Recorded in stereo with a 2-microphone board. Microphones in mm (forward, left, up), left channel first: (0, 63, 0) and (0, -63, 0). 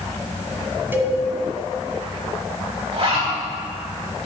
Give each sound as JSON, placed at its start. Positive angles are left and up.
{"t": 0.9, "sound": "a cowbell", "side_deg": -20, "distance_m": 1.8}
{"t": 2.9, "sound": "a zipper", "side_deg": -50, "distance_m": 4.0}